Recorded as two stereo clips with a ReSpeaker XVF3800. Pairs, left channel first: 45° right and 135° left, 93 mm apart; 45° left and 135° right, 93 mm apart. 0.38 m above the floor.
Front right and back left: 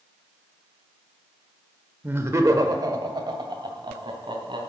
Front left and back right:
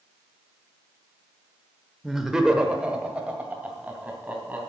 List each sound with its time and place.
2.0 s laughter: 145° left, 1.1 m; by 4.6 s 155° left, 3 m